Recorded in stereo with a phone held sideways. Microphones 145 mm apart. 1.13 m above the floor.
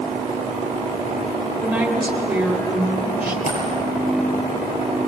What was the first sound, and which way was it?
A woman speaking, 5° right (ahead or behind).